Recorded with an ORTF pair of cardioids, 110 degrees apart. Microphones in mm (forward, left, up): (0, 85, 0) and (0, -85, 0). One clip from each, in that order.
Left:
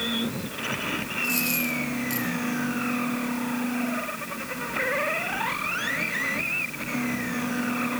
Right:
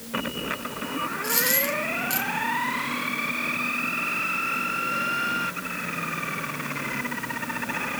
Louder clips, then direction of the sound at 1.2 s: Right 2 dB; 25° right.